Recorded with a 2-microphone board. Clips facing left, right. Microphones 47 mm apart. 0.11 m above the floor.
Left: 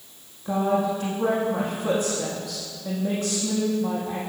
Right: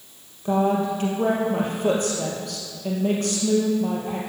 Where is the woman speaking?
65° right (ahead or behind), 3.5 m.